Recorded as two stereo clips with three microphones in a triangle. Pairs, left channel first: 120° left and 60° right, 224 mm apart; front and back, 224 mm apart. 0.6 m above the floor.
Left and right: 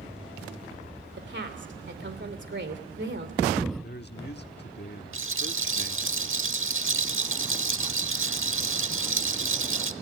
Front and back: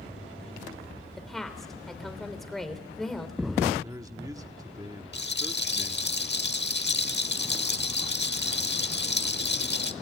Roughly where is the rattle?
Ahead right.